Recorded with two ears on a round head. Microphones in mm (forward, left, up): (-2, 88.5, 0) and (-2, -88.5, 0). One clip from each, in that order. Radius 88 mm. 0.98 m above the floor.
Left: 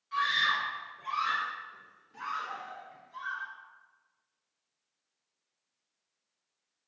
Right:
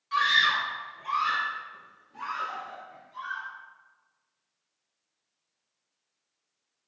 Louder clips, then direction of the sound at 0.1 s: Right 5 dB; 35° right (ahead or behind).